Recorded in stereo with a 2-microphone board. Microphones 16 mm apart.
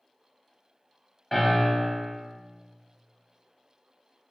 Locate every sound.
1.3 s a piano: 10° right (ahead or behind), 1.2 m